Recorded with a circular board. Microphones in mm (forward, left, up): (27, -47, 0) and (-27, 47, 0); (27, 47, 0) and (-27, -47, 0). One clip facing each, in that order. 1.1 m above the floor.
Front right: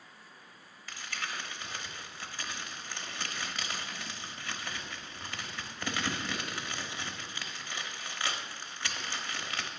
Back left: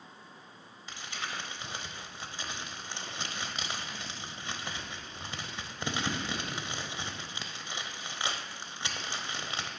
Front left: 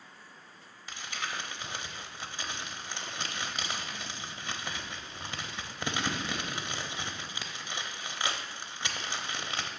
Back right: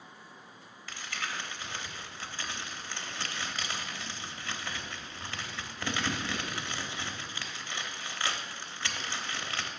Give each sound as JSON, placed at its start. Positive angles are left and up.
{"t": 0.9, "sound": "crumpling", "azimuth_deg": 100, "distance_m": 0.9}